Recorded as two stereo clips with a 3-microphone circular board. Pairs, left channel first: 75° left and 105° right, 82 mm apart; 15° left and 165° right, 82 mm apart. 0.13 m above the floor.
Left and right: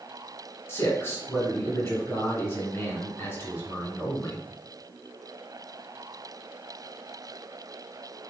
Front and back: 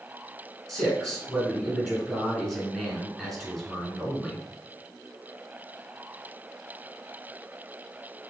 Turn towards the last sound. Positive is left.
turn(degrees=95)